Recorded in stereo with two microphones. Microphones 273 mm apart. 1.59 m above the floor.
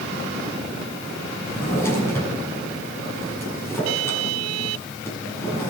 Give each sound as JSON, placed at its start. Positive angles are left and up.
{"t": 1.5, "sound": "a drawer", "side_deg": 10, "distance_m": 7.0}